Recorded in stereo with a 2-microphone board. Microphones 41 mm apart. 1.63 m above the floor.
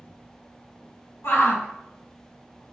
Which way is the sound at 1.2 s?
80° left.